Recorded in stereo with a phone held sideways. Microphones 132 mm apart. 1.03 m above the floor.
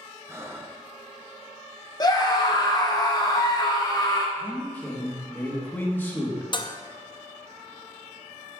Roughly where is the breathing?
Centre.